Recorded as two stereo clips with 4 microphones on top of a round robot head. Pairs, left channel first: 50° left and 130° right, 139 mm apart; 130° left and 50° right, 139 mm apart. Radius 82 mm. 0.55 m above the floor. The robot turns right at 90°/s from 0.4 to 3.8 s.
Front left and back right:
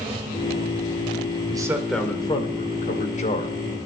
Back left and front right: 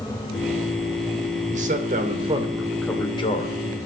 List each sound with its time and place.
1.5 s a man speaking: 75° right, 2.5 m; by 3.5 s 110° left, 2.5 m